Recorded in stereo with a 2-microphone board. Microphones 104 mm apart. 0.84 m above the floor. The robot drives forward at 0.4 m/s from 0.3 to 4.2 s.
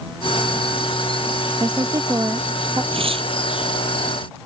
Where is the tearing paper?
60° right (ahead or behind).